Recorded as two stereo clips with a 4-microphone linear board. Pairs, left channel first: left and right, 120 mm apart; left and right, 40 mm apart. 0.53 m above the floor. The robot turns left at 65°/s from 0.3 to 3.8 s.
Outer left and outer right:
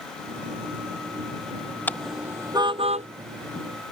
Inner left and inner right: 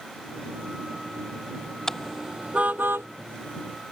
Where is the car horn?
15° left (ahead or behind); by 3.1 s 65° right (ahead or behind).